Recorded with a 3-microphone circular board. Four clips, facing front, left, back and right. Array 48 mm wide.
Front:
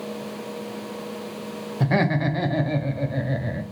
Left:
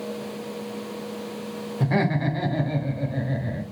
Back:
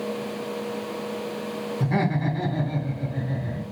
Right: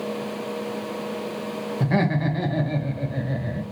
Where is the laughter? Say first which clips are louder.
Even, front 4 dB; straight ahead, 1.0 m.